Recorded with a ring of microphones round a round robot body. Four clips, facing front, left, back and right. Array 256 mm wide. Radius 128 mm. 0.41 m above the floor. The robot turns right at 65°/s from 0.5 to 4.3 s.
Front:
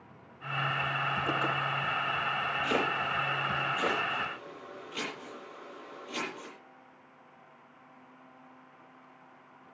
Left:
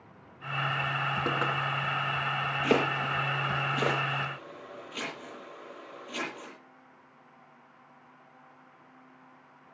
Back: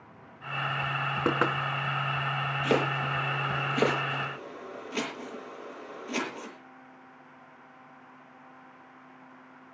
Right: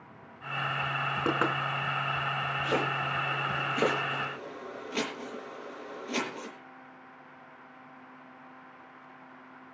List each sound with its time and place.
1.2 s knocking: 170° right, 3.5 m; by 1.5 s 150° right, 3.5 m
2.6 s chopping: 115° left, 8.5 m; by 6.5 s 135° right, 8.5 m